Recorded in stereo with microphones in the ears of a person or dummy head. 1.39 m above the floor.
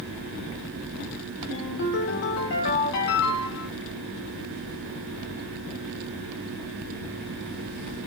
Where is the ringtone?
65° left (ahead or behind), 0.7 m.